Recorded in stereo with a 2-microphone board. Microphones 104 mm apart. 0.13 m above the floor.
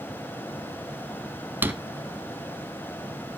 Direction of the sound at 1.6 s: 15° right (ahead or behind).